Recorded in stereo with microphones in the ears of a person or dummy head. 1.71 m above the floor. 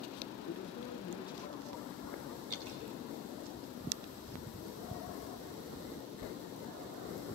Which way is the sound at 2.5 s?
75° right (ahead or behind).